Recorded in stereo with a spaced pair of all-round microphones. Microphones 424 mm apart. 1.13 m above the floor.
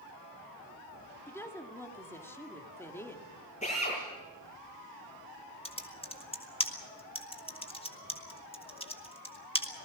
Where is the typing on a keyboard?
15° left (ahead or behind), 1.6 m.